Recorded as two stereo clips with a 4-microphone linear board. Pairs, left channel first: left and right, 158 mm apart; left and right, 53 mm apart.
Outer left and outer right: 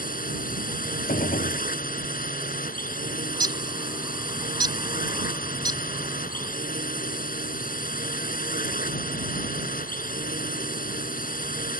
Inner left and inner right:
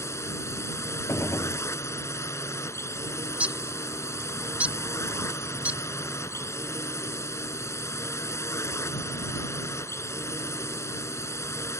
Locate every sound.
0.0 s a drone: 55° left (ahead or behind)
1.1 s a gunshot: 55° left (ahead or behind)
3.3 s a bird: 25° right (ahead or behind)